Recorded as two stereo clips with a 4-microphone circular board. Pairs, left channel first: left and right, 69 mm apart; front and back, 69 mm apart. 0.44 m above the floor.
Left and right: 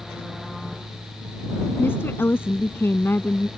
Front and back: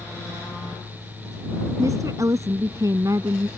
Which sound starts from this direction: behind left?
A woman speaking, at 1.8 s.